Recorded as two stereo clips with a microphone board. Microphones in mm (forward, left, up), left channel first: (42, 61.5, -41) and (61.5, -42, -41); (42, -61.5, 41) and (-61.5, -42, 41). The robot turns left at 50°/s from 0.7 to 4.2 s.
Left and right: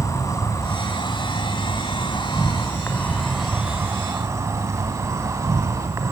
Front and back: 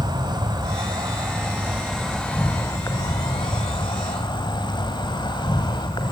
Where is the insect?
145° left, 2.5 m; by 6.1 s 30° right, 2.5 m.